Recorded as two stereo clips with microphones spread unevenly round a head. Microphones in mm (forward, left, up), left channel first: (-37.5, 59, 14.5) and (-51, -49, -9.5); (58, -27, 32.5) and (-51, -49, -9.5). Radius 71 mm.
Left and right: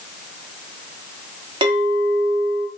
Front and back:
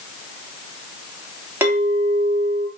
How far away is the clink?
About 0.8 m.